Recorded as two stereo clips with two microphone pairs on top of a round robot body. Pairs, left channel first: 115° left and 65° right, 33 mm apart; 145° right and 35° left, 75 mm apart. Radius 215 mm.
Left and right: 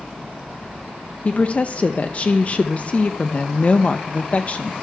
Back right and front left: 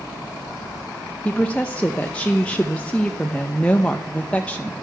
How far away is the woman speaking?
About 0.6 m.